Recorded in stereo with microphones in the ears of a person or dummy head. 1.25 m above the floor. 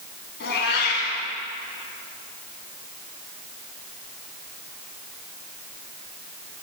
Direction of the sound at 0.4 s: 65° left (ahead or behind).